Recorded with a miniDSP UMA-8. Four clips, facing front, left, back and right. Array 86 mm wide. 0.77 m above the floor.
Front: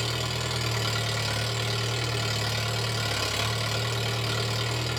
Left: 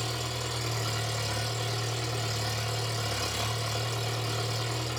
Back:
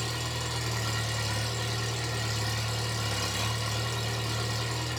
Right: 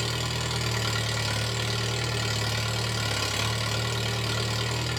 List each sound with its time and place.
0.0 s an engine running: 55° right, 1.2 m